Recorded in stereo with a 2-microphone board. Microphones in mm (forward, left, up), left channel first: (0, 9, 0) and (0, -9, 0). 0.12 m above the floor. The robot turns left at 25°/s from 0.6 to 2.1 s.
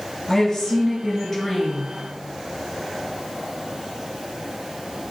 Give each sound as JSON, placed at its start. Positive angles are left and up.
{"t": 0.3, "sound": "a woman speaking", "side_deg": 10, "distance_m": 1.4}